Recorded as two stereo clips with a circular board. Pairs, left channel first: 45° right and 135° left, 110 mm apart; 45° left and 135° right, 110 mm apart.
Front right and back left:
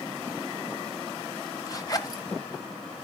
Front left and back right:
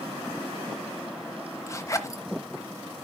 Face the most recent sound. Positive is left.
turn(degrees=-5)